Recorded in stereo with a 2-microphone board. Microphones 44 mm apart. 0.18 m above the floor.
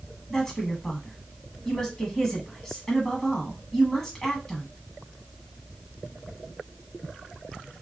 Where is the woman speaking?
10° left (ahead or behind), 1.1 m.